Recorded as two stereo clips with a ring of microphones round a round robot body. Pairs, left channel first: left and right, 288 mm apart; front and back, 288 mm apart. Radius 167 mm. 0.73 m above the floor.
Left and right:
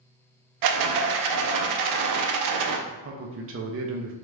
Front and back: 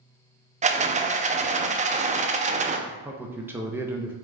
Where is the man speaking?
100° right, 0.6 m.